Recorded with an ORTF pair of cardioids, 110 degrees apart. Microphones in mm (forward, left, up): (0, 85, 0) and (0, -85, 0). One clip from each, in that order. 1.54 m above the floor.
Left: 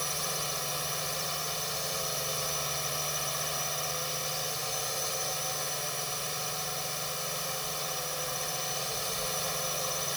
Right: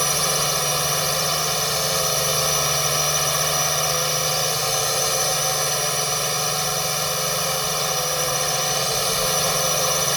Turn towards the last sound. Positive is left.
turn(degrees=-65)